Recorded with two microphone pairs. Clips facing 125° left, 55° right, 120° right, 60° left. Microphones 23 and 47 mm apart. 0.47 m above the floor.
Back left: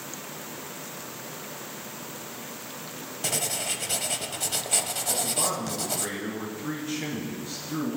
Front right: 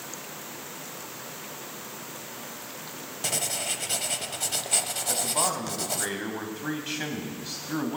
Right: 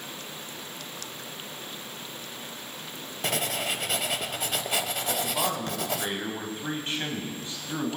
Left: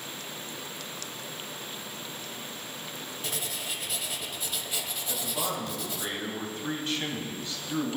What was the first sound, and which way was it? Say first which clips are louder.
Writing: even, right 9 dB; 140° right.